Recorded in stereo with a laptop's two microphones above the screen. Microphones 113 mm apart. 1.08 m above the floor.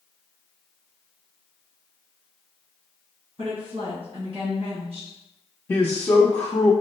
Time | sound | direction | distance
3.4 | a woman speaking | 45° right (ahead or behind) | 1.3 m
5.7 | a man speaking | 25° left (ahead or behind) | 0.6 m